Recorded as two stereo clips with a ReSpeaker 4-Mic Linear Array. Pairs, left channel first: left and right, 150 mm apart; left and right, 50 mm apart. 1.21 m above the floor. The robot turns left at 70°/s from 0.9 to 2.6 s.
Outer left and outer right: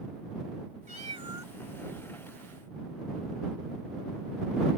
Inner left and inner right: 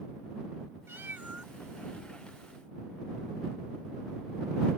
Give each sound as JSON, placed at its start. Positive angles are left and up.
{"t": 0.9, "sound": "a cat meowing", "azimuth_deg": -120}